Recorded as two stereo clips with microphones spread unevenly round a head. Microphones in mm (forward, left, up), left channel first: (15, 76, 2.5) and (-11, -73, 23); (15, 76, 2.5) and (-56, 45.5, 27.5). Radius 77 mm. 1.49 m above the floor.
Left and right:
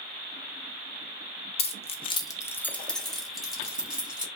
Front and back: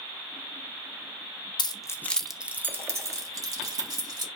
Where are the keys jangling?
35° left, 0.6 m; by 4.3 s straight behind, 1.9 m.